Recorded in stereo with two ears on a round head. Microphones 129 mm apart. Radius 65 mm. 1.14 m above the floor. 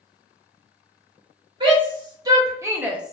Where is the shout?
30° right (ahead or behind), 1.6 m; by 3.1 s centre (ahead or behind), 0.6 m.